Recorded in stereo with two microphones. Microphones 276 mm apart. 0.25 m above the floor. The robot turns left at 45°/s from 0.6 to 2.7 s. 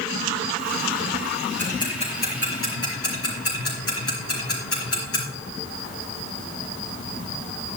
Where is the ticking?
5° left (ahead or behind), 4.5 m; by 5.2 s 55° left (ahead or behind), 4.5 m.